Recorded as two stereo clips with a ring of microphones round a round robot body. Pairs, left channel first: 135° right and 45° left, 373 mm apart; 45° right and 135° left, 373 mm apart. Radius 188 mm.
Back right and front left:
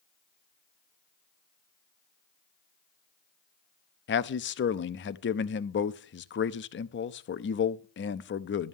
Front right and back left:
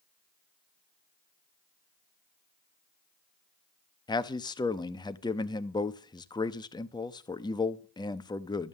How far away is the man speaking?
About 0.6 m.